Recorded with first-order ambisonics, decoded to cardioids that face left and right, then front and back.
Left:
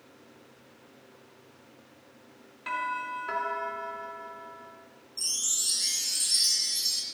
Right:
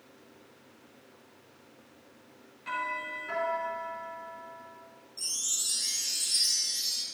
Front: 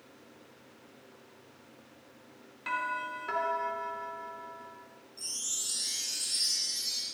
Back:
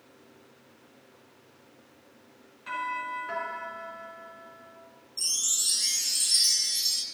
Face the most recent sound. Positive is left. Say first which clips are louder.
# left 3 dB, back 8 dB
turn(degrees=155)